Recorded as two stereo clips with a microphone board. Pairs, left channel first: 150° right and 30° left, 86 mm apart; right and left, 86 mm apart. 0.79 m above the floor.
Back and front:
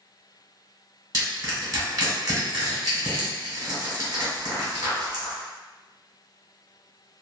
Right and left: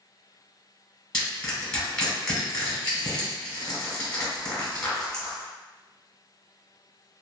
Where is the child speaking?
No child speaking in this recording.